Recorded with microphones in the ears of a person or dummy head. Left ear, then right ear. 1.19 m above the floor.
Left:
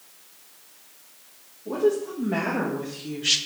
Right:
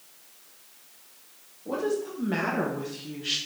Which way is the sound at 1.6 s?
55° right (ahead or behind).